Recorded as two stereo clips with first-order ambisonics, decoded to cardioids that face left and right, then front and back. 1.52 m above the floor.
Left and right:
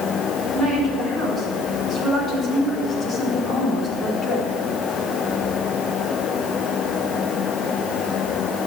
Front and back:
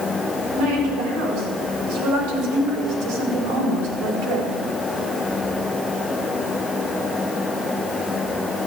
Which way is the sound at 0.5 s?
165° left.